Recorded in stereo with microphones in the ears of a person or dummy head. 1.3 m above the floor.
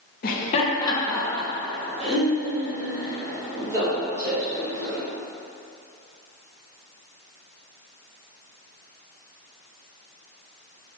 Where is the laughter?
45° left (ahead or behind), 0.6 m; by 5.0 s 20° right (ahead or behind), 3 m.